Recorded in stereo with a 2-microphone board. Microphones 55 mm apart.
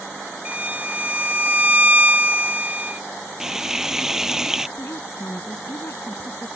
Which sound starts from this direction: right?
A violin, at 0.5 s.